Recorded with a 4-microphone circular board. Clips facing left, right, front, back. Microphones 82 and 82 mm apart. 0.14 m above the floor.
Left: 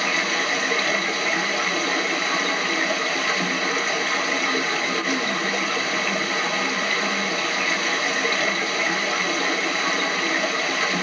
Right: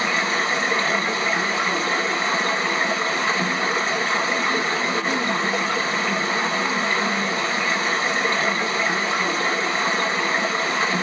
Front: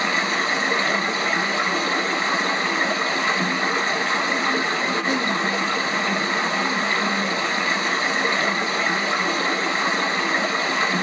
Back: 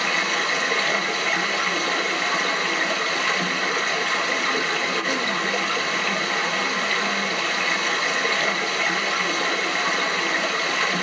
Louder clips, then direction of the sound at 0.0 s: Right 2 dB, front 2 dB; 60° right.